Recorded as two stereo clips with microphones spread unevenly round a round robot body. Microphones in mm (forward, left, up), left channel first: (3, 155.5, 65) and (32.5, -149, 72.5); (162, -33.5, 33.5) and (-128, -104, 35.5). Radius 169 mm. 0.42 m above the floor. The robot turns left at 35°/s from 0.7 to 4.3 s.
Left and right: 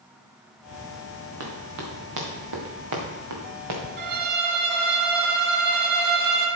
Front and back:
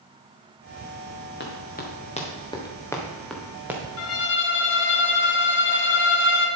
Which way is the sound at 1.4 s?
40° right.